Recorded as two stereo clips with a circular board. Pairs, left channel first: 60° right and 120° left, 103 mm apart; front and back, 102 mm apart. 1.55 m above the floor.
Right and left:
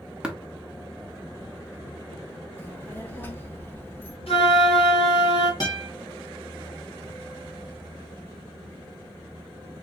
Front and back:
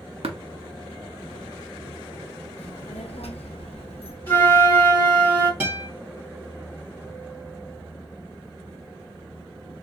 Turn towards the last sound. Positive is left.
turn(degrees=-110)